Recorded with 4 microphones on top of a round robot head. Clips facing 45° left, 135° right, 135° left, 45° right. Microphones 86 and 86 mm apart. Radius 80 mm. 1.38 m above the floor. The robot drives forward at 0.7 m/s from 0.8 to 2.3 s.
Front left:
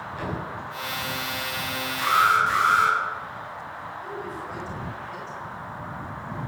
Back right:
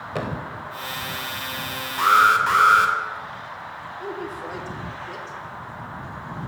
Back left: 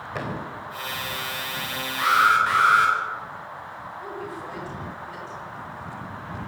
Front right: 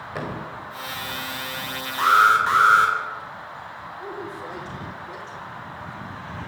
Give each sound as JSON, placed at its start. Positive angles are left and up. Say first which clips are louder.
{"t": 0.1, "sound": "a thud", "louder": "back right 4 dB, even", "azimuth_deg": -130, "distance_m": 3.5}
{"t": 2.0, "sound": "an alarm", "louder": "back right 4 dB, front right 2 dB", "azimuth_deg": -105, "distance_m": 3.5}
{"t": 4.0, "sound": "a woman speaking", "louder": "back right 5 dB, front right 1 dB", "azimuth_deg": -110, "distance_m": 5.5}